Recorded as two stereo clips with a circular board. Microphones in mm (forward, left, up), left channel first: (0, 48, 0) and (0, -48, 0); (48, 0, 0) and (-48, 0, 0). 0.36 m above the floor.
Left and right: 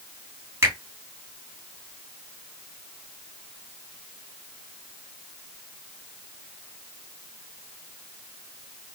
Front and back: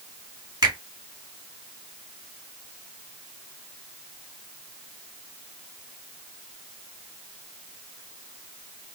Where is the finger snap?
145° right, 3 m.